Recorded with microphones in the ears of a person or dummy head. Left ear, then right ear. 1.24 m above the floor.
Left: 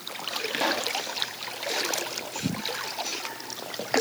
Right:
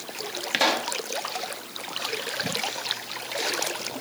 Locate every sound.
0.5 s a pop: 20° right (ahead or behind), 2.5 m